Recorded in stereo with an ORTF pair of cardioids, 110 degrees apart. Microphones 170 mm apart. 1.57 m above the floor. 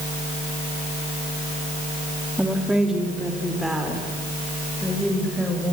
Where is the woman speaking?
5° right, 3.5 m; by 5.7 s straight ahead, 8 m.